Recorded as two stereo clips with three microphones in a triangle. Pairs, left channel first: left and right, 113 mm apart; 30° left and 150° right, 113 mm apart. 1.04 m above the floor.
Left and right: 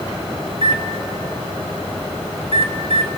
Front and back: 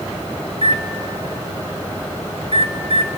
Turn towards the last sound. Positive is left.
turn(degrees=-120)